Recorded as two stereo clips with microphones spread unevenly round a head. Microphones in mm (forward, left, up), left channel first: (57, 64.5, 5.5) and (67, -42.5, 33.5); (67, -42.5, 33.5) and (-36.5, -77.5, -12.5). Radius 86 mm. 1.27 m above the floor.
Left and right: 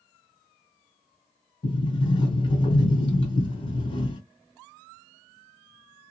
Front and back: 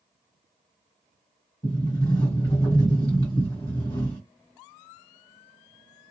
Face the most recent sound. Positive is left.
turn(degrees=50)